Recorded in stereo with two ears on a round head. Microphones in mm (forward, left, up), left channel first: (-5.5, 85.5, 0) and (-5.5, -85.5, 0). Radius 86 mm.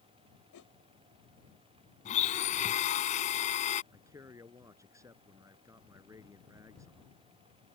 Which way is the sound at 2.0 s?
40° left (ahead or behind).